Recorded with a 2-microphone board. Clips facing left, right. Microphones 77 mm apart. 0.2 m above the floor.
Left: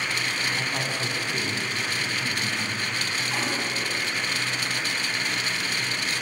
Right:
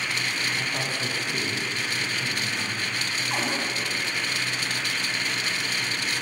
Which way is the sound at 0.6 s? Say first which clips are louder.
Left 1 dB; 25° left (ahead or behind).